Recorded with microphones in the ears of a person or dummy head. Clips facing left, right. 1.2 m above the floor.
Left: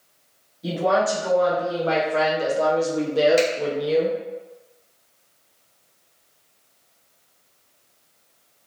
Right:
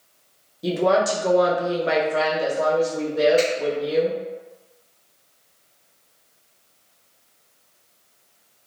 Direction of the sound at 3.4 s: 75° left (ahead or behind).